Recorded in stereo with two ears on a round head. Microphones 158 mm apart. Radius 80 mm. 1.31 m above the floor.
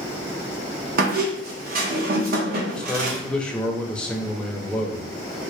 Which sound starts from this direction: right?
A squeak, at 1.0 s.